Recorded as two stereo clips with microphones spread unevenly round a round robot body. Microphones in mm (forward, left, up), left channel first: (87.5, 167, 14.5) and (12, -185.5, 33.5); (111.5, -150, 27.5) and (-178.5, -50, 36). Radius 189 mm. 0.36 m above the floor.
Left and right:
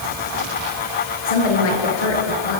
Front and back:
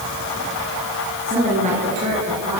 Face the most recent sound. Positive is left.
turn(degrees=90)